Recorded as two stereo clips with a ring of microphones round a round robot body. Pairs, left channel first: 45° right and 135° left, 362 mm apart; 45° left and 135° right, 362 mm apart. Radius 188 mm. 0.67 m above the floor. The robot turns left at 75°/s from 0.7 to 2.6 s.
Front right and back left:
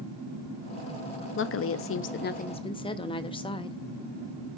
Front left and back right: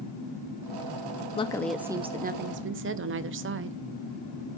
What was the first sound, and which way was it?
A woman speaking, 20° right.